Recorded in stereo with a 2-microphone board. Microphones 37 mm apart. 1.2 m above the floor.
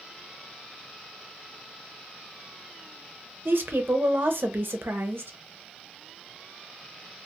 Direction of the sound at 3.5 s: 70° right (ahead or behind).